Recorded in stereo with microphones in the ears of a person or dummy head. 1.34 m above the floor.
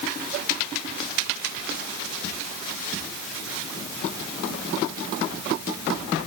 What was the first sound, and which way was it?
Only background noise.